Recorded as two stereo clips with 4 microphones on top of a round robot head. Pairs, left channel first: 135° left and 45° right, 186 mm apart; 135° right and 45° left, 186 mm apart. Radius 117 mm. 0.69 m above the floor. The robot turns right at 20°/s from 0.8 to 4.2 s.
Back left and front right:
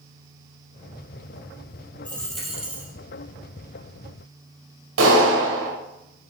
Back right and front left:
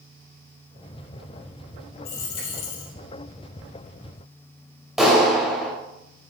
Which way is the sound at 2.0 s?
145° right.